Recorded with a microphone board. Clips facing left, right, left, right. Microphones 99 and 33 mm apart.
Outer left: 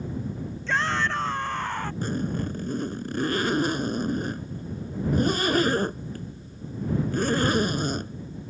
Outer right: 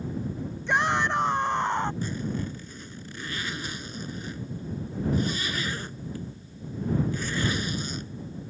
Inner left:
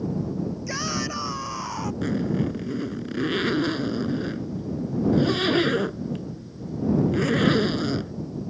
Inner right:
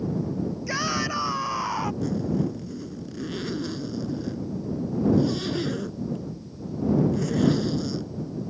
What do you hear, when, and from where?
0.7 s a shout: 15° right (ahead or behind); by 1.9 s 20° right (ahead or behind)
2.0 s a zipper: 50° left (ahead or behind)